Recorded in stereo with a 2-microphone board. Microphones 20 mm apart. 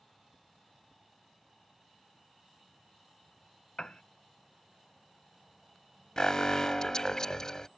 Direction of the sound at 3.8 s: 40° left (ahead or behind).